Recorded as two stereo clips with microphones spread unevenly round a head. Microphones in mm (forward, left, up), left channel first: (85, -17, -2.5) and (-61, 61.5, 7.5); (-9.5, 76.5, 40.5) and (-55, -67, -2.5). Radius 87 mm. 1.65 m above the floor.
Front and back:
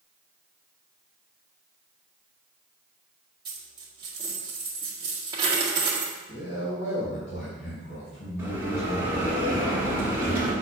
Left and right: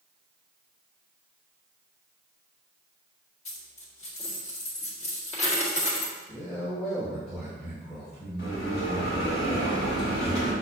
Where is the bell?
75° left, 3 m.